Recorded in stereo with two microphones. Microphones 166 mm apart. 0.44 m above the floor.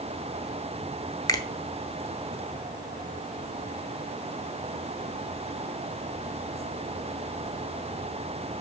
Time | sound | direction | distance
1.3 | a finger snap | 20° left (ahead or behind) | 1.0 m